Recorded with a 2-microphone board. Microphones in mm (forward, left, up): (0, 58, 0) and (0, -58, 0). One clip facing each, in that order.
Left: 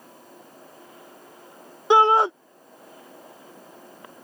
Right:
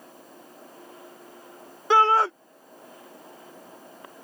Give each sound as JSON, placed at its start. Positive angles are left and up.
{"t": 1.9, "sound": "a shout", "side_deg": 20}